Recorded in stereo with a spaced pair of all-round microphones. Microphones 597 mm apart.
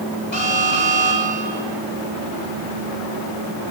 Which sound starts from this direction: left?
An alarm, at 0.3 s.